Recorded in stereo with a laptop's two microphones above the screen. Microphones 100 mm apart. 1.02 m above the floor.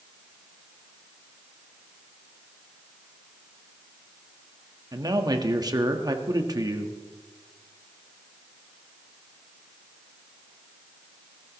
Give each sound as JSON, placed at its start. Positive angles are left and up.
{"t": 4.9, "sound": "a man speaking", "side_deg": -40, "distance_m": 1.4}